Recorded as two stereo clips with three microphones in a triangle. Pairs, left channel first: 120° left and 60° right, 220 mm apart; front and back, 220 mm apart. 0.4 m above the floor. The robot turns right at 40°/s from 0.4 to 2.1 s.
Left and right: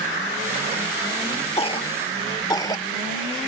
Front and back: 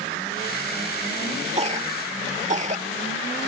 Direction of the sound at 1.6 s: 155° left.